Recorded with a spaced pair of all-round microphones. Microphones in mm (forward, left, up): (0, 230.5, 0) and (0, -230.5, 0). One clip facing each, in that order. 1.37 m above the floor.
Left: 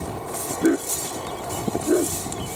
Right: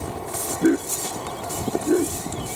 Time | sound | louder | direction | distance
0.6 | a dog barking | right 1 dB | 10° right (ahead or behind) | ?